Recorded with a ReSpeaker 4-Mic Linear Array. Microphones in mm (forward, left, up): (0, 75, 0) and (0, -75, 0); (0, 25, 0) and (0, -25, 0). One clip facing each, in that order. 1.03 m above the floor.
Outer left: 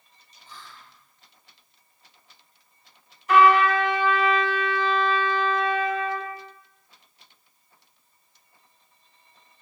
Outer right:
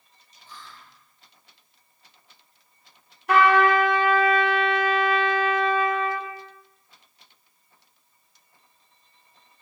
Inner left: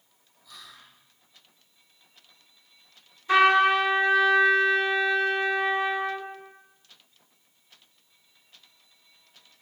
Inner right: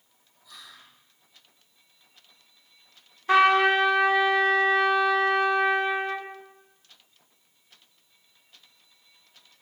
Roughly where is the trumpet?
Right.